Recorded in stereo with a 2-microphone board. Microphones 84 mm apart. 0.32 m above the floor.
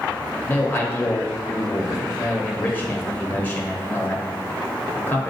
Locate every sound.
0.4 s a man speaking: 25° left (ahead or behind), 0.9 m